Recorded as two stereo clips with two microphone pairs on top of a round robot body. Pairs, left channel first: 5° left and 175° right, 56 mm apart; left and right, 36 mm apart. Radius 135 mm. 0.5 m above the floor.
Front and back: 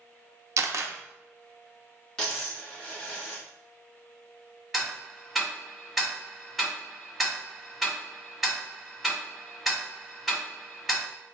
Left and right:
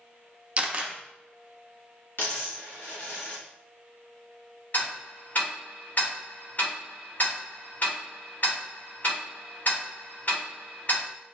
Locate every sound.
0.6 s a camera shutter: 150° right, 0.6 m
2.2 s a dropped coin: 90° left, 1.8 m
4.7 s ticking: 95° left, 1.6 m